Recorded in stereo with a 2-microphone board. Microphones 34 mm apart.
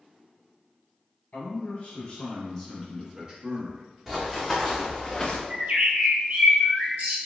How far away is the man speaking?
About 1.5 m.